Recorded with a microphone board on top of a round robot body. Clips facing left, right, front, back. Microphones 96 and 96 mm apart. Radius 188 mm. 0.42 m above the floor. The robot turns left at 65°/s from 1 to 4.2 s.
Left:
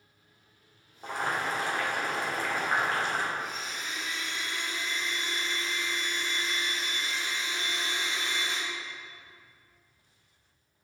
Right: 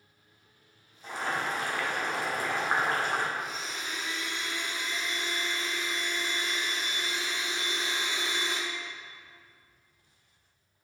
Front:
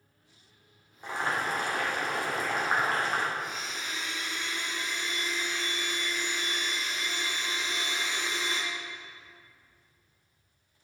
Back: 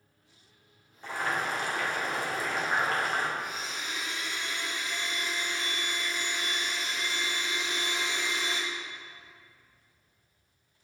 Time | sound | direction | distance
1.0 | boiling | 75° left | 2.5 m
3.4 | a blender | 85° right | 3 m